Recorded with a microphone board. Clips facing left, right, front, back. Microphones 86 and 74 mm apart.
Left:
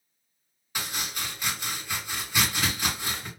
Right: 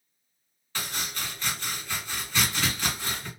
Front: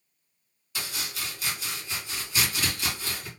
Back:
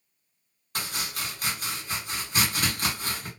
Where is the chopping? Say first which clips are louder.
Even, back 2 dB; 165° left, 2.0 m.